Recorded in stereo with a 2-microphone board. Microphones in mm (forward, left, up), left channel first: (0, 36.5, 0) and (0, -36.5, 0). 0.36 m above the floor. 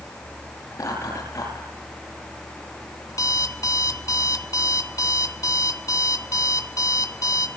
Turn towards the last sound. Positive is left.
turn(degrees=55)  # may be behind; listen again after turning